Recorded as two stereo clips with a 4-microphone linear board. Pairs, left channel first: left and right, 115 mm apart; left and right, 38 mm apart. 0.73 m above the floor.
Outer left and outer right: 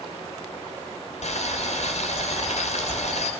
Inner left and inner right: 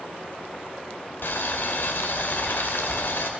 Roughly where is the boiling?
Left.